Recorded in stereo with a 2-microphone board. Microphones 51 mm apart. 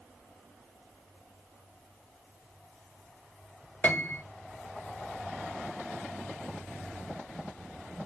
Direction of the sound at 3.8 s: 35° left (ahead or behind).